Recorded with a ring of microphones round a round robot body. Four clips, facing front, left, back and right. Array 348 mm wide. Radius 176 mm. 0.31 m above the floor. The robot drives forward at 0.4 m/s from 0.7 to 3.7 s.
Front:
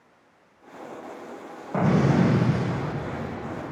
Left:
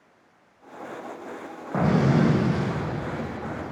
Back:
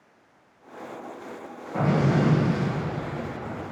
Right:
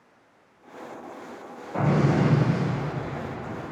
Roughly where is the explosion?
Ahead left.